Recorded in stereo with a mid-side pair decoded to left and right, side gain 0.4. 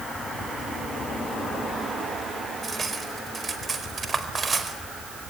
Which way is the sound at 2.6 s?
35° right.